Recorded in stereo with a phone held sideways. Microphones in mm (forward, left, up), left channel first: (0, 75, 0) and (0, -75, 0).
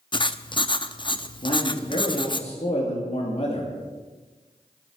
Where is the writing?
35° left (ahead or behind), 0.7 m.